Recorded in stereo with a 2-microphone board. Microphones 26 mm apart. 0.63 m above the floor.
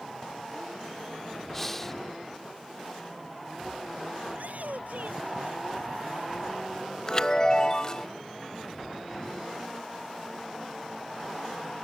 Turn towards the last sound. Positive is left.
turn(degrees=30)  # may be behind; listen again after turning